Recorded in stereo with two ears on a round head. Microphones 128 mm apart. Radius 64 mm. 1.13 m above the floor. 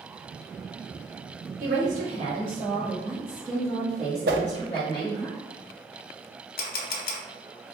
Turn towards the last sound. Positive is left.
turn(degrees=70)  # may be behind; listen again after turning